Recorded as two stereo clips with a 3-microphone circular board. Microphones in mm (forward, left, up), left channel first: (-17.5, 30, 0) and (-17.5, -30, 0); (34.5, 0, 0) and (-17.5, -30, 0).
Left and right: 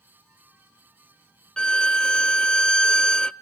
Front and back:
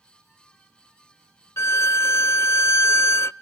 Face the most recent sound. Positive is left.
turn(degrees=20)